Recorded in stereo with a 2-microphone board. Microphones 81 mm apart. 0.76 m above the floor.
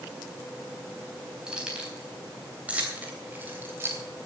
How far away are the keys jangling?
About 4 m.